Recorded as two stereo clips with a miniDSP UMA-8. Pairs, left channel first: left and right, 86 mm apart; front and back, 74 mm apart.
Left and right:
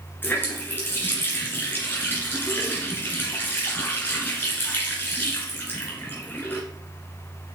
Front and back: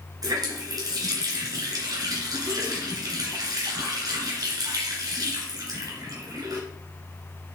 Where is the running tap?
155° left, 2.5 m.